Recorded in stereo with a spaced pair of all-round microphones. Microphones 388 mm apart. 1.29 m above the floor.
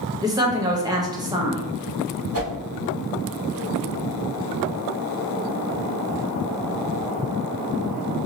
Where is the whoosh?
40° right (ahead or behind), 1.5 m.